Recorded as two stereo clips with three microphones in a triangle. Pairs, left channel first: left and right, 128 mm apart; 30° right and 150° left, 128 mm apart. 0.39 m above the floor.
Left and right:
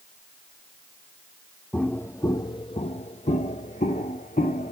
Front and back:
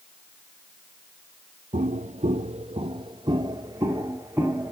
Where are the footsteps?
170° left, 0.8 m; by 4.7 s 75° left, 1.5 m.